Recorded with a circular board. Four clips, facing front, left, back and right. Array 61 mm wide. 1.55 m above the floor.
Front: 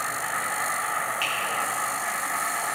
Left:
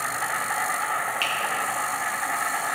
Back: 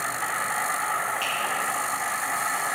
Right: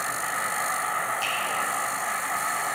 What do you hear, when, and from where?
0.0 s an insect: 115° left, 3.5 m
1.2 s a finger snap: 75° left, 1.6 m